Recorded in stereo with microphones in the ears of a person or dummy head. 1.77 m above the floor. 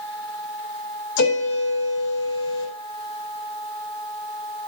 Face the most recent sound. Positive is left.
turn(degrees=80)